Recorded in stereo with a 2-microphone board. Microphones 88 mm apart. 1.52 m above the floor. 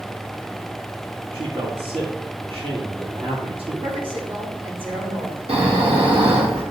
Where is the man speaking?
80° right, 2.5 m.